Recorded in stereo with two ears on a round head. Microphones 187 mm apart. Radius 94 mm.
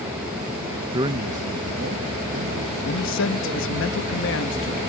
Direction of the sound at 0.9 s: 15° right (ahead or behind).